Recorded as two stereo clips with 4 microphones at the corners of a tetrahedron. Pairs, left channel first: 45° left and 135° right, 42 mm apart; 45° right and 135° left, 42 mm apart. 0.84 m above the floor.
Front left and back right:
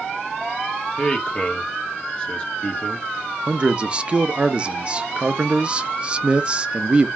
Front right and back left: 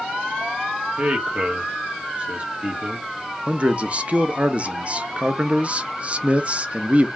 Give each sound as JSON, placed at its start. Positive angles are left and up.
{"t": 1.0, "sound": "a man speaking", "azimuth_deg": 95, "distance_m": 1.2}
{"t": 3.5, "sound": "a man speaking", "azimuth_deg": 175, "distance_m": 0.5}